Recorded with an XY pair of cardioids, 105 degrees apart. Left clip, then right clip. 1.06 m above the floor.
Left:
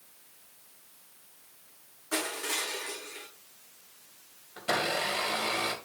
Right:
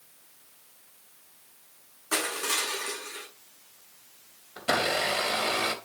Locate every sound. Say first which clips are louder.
2.1 s crushing: right 4 dB; 60° right, 7.5 m
4.6 s a blender: right 3 dB; 30° right, 2.5 m